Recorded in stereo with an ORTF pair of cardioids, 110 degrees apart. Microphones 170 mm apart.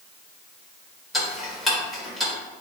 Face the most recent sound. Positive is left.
turn(degrees=0)